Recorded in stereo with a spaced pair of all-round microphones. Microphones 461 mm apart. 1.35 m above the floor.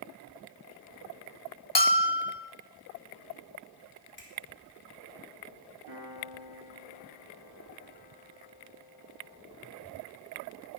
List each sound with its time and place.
1.8 s a bell: 60° left (ahead or behind), 1.1 m
4.2 s a finger snap: 25° left (ahead or behind), 3 m
5.9 s a piano: 55° right (ahead or behind), 4.5 m